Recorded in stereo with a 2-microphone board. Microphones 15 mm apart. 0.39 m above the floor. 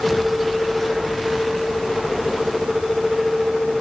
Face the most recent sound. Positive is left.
No sound to turn to.